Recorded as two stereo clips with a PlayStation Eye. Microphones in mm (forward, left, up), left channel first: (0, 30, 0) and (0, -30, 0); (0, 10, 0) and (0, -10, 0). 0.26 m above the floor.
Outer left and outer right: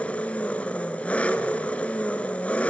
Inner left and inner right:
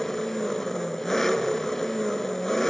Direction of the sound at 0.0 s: 20° left (ahead or behind).